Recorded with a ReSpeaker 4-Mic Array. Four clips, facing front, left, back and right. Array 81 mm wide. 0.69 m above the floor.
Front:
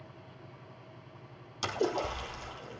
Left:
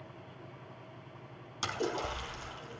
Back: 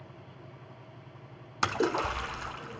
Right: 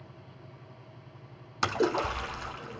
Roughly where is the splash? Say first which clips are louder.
Right 7 dB, back 3 dB; behind right.